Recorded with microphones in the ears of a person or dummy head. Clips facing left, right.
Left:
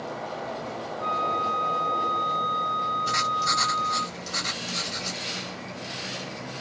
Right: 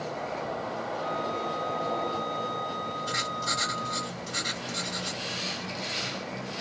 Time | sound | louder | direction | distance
1.0 | a flute | left 3 dB | 35° left (ahead or behind) | 1.5 m
3.1 | writing | left 3 dB | 60° left (ahead or behind) | 2.5 m